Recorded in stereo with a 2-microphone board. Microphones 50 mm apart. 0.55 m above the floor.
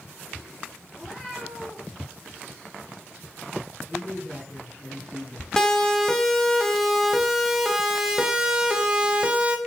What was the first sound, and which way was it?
A cat meowing, 5° left (ahead or behind).